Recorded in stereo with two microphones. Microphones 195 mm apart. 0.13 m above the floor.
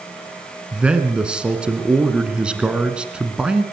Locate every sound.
0.7 s a man speaking: 5° right (ahead or behind), 1.7 m